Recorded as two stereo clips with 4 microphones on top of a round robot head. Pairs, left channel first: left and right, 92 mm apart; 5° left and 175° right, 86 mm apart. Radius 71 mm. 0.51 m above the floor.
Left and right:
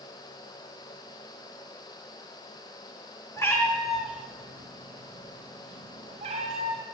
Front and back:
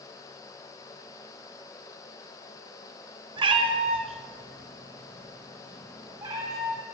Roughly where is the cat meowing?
Behind left.